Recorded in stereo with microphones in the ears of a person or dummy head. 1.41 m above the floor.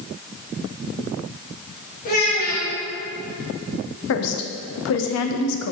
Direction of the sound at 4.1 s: 70° left (ahead or behind).